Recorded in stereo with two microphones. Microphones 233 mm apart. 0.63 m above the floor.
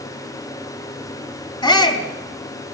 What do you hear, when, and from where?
1.6 s a shout: 20° left (ahead or behind), 4.5 m